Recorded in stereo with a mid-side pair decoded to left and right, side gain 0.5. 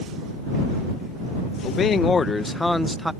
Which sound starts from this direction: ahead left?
A man speaking, at 1.6 s.